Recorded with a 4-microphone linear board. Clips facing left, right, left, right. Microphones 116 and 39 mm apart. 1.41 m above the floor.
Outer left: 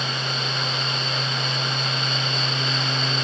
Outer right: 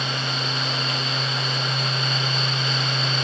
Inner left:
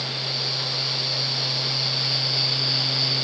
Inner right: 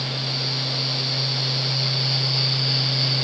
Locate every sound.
Only background noise.